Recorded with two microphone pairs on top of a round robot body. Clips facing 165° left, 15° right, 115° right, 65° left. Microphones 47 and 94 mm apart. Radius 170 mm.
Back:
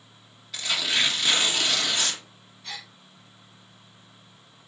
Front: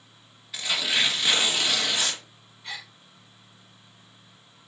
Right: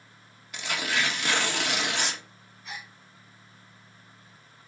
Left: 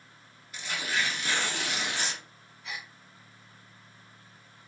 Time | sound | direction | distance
0.5 | tearing paper | 95° right | 1.8 m
2.6 | a gasp | 60° left | 5 m